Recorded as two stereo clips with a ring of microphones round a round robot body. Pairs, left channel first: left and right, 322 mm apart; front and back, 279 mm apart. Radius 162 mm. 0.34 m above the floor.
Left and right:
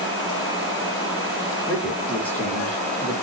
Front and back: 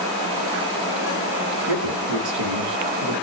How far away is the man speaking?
About 4 m.